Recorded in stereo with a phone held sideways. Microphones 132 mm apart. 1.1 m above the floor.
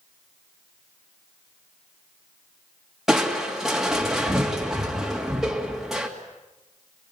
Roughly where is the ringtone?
I don't hear a ringtone.